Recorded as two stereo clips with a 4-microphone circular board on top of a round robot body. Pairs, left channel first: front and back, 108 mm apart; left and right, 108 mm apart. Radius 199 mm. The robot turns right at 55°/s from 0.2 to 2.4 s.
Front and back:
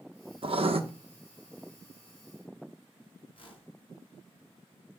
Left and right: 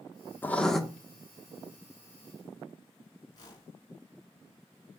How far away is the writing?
About 1.6 m.